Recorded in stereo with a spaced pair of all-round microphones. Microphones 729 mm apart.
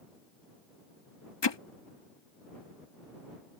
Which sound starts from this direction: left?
Hammering, at 1.4 s.